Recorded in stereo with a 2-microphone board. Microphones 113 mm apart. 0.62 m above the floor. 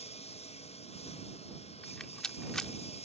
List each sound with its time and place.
0.0 s a lawn mower: 65° left (ahead or behind)
1.8 s a rattle: 5° left (ahead or behind)